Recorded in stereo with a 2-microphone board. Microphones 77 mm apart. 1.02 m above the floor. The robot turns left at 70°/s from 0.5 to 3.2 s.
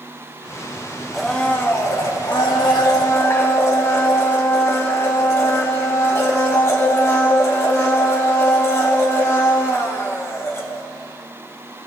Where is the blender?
Straight behind, 1.8 m; by 10.8 s 35° left, 1.8 m.